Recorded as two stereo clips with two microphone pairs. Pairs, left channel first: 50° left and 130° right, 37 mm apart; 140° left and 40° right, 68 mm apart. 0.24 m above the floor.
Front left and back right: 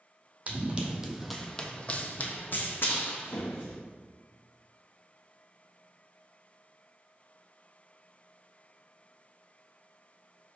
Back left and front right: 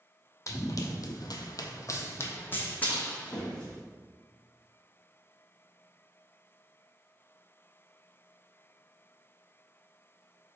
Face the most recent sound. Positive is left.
turn(degrees=65)